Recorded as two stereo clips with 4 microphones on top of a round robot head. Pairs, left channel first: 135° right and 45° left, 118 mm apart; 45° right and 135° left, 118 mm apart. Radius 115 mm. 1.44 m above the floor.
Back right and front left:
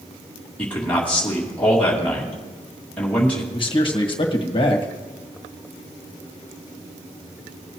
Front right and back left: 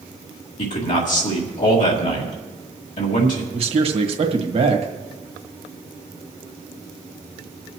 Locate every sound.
0.6 s a man speaking: 55° right, 2 m
3.5 s a man speaking: 175° left, 1.6 m